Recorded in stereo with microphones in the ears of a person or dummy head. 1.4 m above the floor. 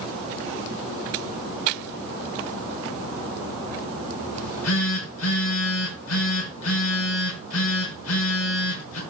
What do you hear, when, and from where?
4.3 s a phone buzzing: 80° left, 6.5 m